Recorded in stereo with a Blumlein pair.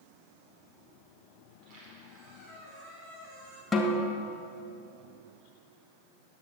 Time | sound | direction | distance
1.5 | a squeak | 30° right | 4.5 m
3.7 | a snare drum | 10° left | 2 m